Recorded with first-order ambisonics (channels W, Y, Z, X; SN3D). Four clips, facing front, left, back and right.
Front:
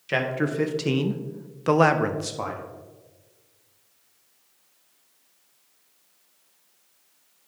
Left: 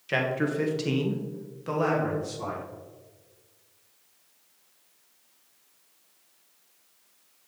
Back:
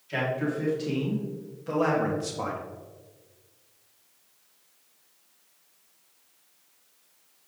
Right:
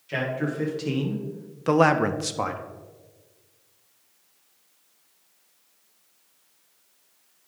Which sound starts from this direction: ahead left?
A man speaking, at 0.1 s.